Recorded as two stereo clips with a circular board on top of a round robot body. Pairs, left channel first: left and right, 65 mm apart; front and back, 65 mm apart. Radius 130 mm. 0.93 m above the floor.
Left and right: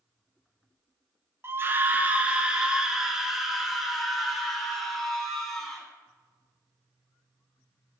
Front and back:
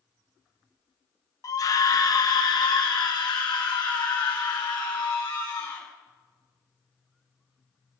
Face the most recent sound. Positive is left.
turn(degrees=5)